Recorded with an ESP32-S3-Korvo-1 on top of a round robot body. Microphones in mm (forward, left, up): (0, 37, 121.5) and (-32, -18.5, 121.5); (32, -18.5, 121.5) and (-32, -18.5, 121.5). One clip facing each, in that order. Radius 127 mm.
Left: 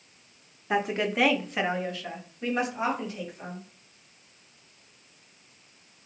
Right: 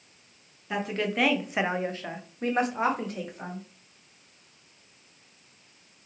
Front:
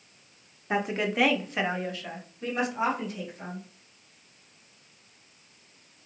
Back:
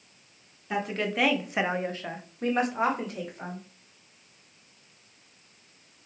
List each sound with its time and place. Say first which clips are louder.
0.7 s a woman speaking: left 3 dB, front 2 dB; 35° left, 0.8 m; by 3.6 s 150° right, 1.7 m